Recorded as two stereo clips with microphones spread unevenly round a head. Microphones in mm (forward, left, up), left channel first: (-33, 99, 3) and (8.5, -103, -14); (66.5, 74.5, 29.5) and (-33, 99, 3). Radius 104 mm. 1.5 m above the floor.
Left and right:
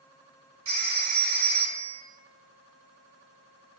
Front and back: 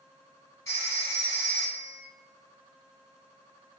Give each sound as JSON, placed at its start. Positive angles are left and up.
{"t": 0.7, "sound": "a phone ringing", "azimuth_deg": -80, "distance_m": 1.6}